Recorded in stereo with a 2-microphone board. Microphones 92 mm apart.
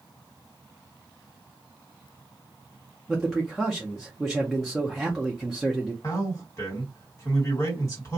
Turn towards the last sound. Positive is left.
turn(degrees=35)  # may be behind; listen again after turning